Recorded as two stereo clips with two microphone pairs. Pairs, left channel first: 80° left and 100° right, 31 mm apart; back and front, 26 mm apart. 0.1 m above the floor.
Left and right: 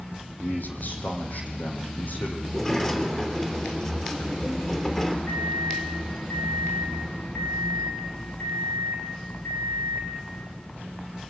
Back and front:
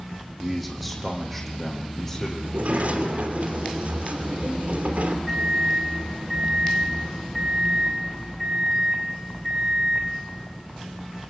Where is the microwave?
90° left, 5 m.